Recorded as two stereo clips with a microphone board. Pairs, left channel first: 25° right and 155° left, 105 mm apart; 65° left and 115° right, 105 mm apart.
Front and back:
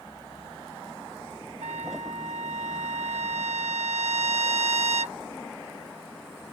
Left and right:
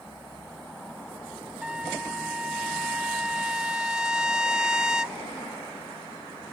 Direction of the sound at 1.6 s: 165° left.